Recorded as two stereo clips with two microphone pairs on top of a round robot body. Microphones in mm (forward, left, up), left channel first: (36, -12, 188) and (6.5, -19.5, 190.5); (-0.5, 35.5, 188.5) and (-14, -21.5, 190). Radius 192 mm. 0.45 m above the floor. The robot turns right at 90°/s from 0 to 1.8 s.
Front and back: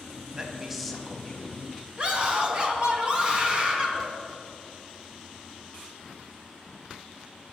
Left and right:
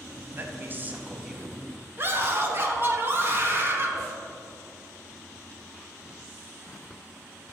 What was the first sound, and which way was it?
A man speaking, 115° right.